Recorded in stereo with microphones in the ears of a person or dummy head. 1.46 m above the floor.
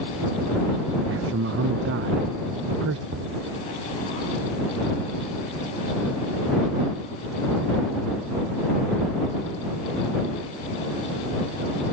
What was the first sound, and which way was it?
A man speaking, 70° right (ahead or behind).